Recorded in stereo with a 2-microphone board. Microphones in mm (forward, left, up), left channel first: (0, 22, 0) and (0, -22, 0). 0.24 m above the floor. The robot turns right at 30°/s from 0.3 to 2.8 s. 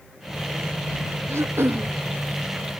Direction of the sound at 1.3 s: 80° right.